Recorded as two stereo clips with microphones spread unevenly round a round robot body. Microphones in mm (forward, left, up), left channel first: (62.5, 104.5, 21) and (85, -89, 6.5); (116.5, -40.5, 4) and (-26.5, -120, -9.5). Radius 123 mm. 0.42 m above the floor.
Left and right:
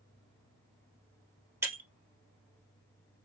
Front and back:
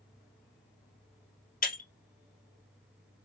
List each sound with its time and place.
1.6 s breaking glass: 5° right, 2.5 m